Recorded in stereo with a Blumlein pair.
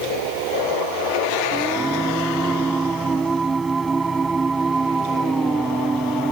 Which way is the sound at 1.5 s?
15° right.